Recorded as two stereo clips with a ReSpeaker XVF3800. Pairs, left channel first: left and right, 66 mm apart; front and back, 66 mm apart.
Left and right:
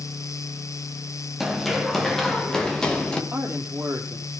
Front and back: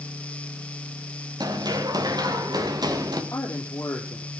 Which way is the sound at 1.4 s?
Straight behind.